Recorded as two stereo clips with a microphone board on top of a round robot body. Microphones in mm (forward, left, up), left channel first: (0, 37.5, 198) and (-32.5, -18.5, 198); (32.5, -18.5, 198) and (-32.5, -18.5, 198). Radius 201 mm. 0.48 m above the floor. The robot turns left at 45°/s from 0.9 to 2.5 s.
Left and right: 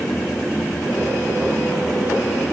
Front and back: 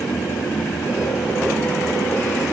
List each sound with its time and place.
Only background noise.